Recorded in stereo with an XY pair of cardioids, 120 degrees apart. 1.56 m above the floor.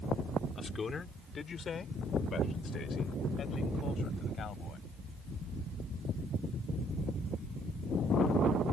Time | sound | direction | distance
0.6 | a man speaking | 30° left | ?